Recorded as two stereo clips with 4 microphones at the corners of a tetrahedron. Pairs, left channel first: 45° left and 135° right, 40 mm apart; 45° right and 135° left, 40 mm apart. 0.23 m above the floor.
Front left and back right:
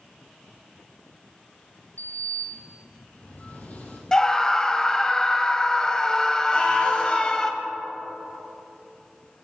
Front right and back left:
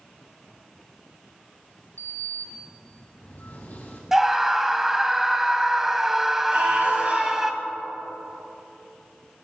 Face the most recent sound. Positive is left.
turn(degrees=95)